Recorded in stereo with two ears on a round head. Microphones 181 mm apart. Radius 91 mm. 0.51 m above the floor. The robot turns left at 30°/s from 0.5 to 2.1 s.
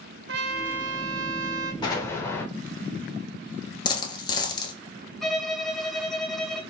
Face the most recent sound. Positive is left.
turn(degrees=0)  # may be behind; listen again after turning